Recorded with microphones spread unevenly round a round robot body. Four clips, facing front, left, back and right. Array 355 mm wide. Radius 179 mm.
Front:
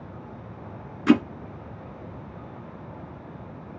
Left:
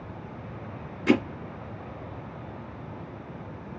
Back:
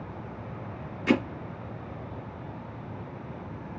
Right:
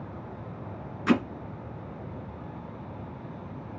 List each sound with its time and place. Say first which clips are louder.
1.1 s hammering: left 2 dB, front 6 dB; 15° left, 3 m